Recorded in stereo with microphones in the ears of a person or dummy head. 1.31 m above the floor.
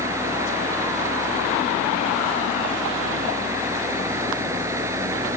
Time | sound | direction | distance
0.0 | a fan | 15° right (ahead or behind) | ?